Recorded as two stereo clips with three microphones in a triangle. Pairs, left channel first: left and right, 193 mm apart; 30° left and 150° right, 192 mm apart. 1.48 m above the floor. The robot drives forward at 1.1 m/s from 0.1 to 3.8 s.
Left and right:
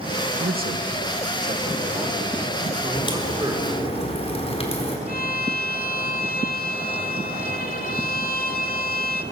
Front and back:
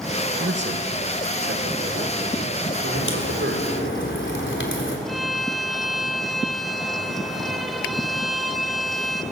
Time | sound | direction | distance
0.4 | a man speaking | 125° right | 2 m
3.0 | a crack | 25° left | 5 m
5.1 | a violin | 120° left | 1.7 m